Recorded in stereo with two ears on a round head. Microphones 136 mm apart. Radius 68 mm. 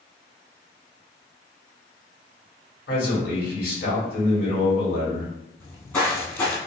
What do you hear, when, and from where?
2.9 s a man speaking: 70° left (ahead or behind), 1.7 m
5.6 s footsteps: 15° left (ahead or behind), 1.1 m